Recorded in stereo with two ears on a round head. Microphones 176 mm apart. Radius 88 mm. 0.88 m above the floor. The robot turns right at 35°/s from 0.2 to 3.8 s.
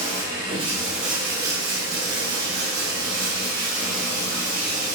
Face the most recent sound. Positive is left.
turn(degrees=-40)